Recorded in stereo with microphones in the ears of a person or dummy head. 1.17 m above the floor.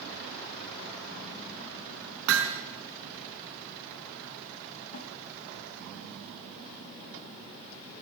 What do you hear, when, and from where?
2.3 s hammering: 75° right (ahead or behind), 3.5 m
4.9 s a snare drum: 50° left (ahead or behind), 3.5 m